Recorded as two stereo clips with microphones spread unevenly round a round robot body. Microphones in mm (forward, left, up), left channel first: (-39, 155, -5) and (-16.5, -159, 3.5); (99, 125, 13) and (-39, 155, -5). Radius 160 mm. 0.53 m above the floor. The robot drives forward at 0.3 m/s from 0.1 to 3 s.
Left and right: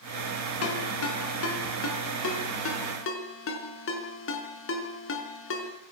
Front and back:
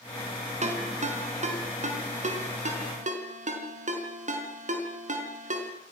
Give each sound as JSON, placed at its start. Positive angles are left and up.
{"t": 0.6, "sound": "a ringtone", "azimuth_deg": 135, "distance_m": 4.5}